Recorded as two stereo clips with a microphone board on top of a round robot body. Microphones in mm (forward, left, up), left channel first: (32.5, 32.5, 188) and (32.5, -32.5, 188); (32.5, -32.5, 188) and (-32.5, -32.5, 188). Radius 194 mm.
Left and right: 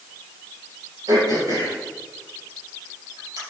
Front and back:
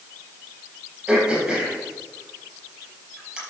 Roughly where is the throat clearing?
Right.